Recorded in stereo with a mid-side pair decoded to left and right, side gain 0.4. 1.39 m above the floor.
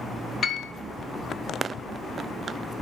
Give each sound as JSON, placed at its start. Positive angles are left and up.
{"t": 0.4, "sound": "a piano", "azimuth_deg": 50, "distance_m": 0.5}